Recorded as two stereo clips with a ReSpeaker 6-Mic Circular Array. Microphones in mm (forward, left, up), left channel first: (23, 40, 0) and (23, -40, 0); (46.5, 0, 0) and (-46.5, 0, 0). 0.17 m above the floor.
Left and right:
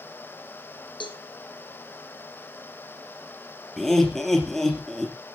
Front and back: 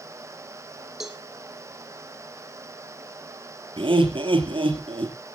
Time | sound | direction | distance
1.0 | a cowbell | 95° left | 1.9 m
3.8 | laughter | 175° left | 3.5 m